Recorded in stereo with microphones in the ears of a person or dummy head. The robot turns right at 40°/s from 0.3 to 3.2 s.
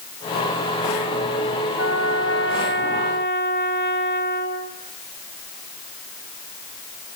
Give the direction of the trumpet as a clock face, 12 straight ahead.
9 o'clock.